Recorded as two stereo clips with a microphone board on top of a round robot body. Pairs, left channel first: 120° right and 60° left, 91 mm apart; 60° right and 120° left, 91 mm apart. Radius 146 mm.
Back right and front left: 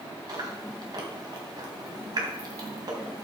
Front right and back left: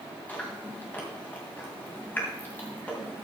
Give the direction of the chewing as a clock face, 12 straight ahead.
12 o'clock.